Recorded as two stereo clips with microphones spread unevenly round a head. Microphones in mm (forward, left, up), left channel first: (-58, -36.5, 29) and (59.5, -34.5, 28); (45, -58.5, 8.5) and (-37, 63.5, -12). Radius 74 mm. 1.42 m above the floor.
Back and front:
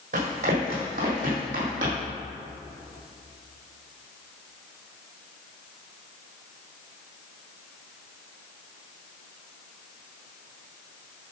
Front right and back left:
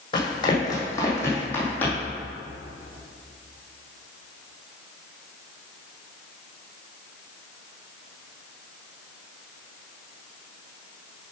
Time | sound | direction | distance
0.1 | running footsteps | 5° right | 3 m